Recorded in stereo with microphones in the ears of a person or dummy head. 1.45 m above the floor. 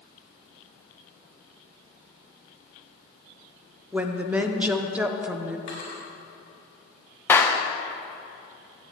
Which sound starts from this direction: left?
A drawer, at 5.7 s.